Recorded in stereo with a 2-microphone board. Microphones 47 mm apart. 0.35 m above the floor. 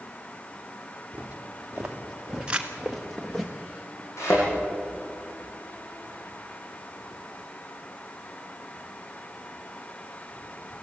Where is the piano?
No piano in this recording.